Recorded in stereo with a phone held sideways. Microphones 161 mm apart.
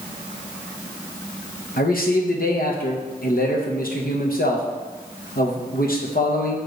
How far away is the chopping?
I don't hear chopping.